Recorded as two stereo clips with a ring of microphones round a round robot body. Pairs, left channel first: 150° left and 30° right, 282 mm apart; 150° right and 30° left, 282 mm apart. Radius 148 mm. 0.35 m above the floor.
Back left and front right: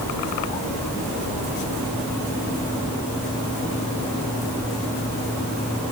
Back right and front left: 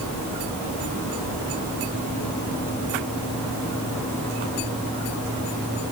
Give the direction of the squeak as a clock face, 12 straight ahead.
I don't hear a squeak.